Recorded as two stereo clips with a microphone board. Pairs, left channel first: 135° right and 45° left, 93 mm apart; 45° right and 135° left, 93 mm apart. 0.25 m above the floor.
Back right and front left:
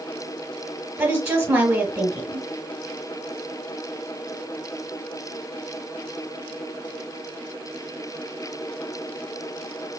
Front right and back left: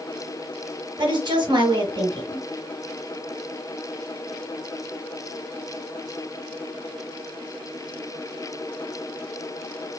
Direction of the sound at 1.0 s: 110° left.